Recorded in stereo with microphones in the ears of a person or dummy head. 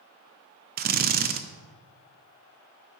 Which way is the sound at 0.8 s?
45° right (ahead or behind).